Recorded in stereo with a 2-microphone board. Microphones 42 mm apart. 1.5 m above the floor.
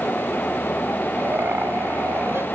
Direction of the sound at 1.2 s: 65° right (ahead or behind).